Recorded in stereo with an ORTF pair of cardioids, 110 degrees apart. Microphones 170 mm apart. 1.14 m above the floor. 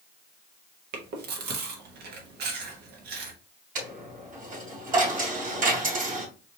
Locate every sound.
0.9 s chewing: 70° right, 1.2 m
3.8 s a dropped coin: 55° right, 2.5 m